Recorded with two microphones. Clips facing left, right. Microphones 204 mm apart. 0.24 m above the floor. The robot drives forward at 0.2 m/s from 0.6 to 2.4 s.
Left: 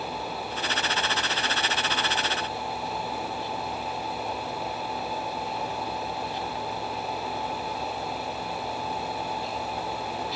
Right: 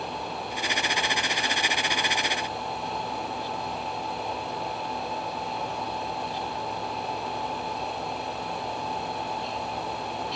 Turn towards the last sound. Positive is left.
No sound to turn to.